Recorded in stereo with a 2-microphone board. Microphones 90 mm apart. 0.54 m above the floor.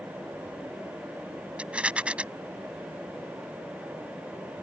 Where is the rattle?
15° right (ahead or behind).